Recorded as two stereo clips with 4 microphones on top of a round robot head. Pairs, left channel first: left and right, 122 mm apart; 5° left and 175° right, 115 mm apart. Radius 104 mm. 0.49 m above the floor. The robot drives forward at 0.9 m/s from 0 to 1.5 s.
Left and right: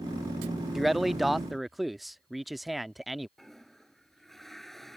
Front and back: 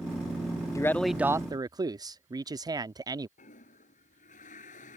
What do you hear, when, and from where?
0.8 s a man speaking: straight ahead; by 3.3 s straight behind
3.4 s a toilet flushing: straight ahead